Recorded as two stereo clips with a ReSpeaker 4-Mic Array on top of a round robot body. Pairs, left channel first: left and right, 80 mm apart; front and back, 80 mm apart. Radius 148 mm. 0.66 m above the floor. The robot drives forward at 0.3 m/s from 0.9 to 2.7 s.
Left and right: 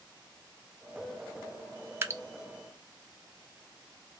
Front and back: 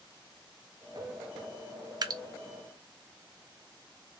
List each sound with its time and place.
2.0 s dripping: 145° right, 0.8 m; by 2.2 s 150° right, 0.8 m